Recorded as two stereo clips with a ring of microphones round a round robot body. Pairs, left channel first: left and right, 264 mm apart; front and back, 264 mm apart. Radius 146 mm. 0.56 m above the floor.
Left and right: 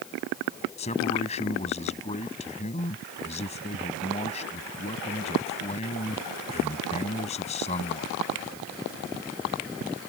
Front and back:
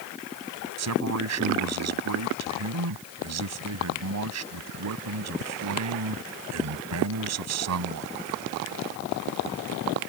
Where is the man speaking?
160° left.